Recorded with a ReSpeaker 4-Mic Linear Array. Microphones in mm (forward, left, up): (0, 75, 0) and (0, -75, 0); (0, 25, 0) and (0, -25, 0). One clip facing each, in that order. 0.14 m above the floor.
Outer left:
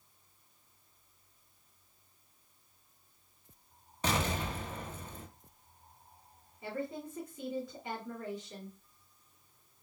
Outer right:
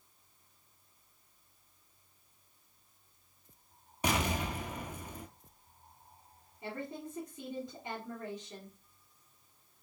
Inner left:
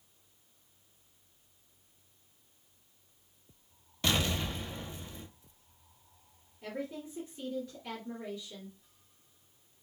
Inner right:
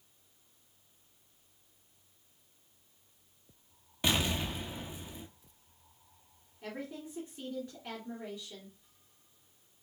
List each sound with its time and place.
4.0 s an explosion: 15° right (ahead or behind), 0.6 m
6.6 s a woman speaking: 20° right (ahead or behind), 1.9 m